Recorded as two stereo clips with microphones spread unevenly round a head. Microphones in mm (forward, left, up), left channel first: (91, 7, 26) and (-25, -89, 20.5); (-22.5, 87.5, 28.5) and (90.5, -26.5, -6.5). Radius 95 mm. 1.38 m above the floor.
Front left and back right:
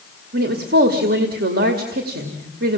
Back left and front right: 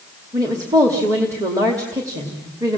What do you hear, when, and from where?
0.3 s a woman speaking: 125° right, 2 m